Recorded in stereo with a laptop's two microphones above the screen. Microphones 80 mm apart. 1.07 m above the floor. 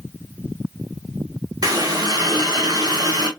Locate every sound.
1.6 s a running tap: 55° right (ahead or behind), 1.0 m